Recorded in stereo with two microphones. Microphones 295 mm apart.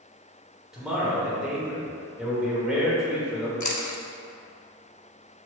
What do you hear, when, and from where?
0.7 s a man speaking: centre (ahead or behind), 1.2 m
3.6 s chewing: 70° left (ahead or behind), 0.5 m